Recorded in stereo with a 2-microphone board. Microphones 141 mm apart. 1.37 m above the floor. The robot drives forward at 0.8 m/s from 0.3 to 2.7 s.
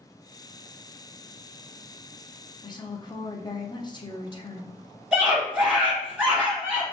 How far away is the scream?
About 2 m.